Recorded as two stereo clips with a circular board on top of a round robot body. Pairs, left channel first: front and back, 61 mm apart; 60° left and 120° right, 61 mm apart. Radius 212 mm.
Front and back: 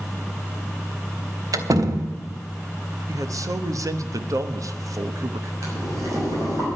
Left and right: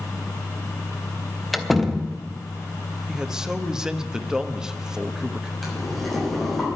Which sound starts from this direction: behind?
A man speaking, at 3.1 s.